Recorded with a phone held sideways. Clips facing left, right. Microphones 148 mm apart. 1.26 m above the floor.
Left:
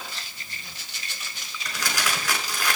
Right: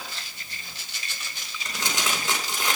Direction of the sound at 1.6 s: 25° right (ahead or behind).